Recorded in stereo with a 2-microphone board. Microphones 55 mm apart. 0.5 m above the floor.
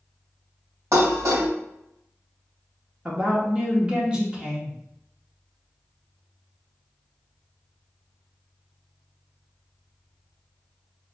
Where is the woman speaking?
20° right (ahead or behind), 0.9 m.